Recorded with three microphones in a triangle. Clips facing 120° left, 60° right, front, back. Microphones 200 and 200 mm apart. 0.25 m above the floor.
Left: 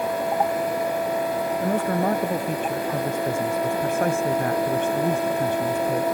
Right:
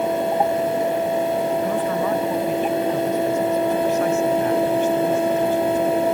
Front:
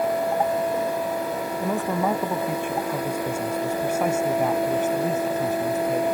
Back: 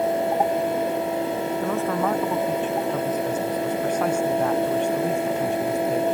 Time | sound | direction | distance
1.6 | a man speaking | 75° left | ?